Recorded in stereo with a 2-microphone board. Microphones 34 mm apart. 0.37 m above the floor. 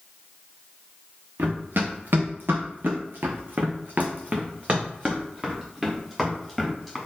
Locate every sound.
1.4 s running footsteps: 65° right (ahead or behind), 1.7 m; by 7.0 s centre (ahead or behind), 2.5 m